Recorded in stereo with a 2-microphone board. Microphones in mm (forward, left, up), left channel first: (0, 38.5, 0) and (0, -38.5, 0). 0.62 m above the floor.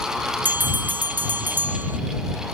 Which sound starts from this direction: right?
A bell, at 0.5 s.